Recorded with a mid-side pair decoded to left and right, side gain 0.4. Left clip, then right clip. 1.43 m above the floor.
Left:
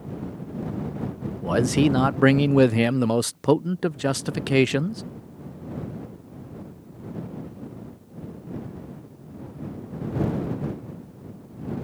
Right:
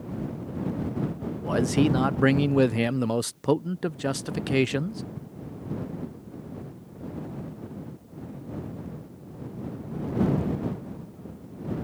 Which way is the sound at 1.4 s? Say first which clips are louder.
Left 3 dB; 35° left.